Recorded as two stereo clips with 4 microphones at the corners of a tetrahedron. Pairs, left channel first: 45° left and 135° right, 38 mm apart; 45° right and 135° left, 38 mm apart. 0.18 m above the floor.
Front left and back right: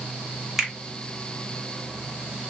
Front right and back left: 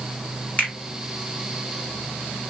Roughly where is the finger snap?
Ahead right.